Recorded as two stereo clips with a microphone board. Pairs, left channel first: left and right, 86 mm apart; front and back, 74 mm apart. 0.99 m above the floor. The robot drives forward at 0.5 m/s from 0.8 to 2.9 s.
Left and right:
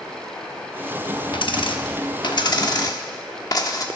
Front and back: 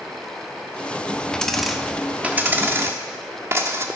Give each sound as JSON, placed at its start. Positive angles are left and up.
{"t": 1.3, "sound": "a dropped coin", "azimuth_deg": 80, "distance_m": 0.8}